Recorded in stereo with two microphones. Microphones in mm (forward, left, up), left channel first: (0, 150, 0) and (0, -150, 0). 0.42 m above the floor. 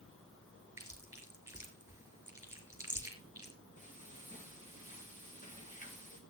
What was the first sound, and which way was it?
Chewing, 10° right (ahead or behind).